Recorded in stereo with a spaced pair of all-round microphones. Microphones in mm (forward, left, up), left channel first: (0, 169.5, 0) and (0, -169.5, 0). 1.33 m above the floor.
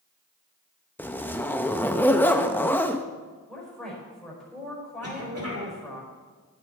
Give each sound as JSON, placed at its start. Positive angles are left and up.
{"t": 1.0, "sound": "a zipper", "side_deg": 5, "distance_m": 0.6}
{"t": 3.5, "sound": "a woman speaking", "side_deg": 0, "distance_m": 4.5}
{"t": 5.0, "sound": "a cough", "side_deg": -45, "distance_m": 3.0}